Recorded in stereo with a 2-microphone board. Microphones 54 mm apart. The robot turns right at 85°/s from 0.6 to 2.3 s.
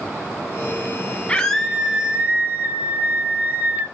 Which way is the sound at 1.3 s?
145° left.